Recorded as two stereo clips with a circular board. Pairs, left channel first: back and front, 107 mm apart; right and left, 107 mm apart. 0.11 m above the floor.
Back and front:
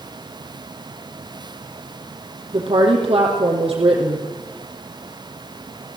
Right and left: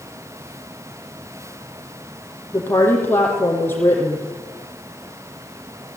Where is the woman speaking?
20° right, 4.5 m.